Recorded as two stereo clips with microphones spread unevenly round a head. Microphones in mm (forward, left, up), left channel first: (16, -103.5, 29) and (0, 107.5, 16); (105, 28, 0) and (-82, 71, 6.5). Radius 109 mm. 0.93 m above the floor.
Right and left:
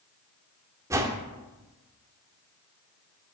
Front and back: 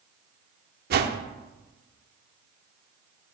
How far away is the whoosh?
About 0.6 m.